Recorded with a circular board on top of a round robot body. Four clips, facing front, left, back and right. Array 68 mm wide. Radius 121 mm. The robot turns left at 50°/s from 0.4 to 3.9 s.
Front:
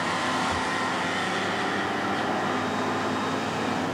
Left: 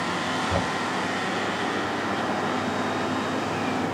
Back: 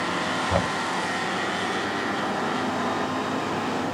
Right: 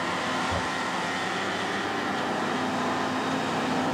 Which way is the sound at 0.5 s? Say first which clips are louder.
Left 3 dB, back 3 dB; 165° left.